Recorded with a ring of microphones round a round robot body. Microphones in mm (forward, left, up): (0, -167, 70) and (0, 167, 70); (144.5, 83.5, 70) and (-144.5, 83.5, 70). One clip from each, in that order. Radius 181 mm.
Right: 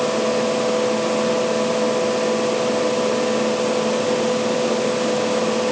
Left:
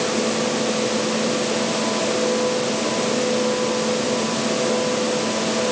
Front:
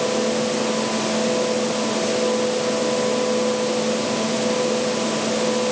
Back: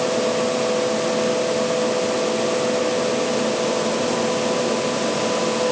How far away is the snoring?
I don't hear snoring.